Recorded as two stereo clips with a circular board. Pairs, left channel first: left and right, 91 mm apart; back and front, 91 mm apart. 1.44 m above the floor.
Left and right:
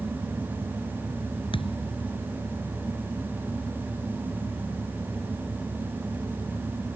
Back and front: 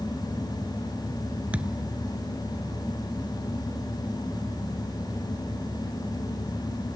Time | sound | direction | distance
1.5 | a thud | 75° left | ?